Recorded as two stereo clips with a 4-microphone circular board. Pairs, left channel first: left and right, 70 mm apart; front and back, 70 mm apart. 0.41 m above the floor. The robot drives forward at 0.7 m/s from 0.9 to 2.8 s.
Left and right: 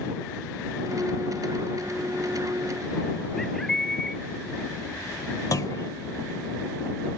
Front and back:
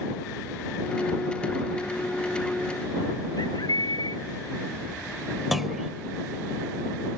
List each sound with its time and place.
3.4 s a bird: 5° left
5.5 s a clunk: 95° left